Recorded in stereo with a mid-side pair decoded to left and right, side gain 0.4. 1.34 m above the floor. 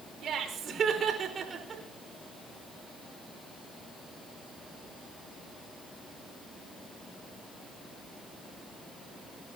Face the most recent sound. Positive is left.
turn(degrees=-45)